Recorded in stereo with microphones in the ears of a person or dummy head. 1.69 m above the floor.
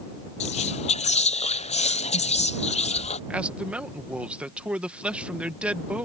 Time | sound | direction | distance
0.4 | whispering | 40° left (ahead or behind) | ?
3.3 | a man speaking | 10° right (ahead or behind) | ?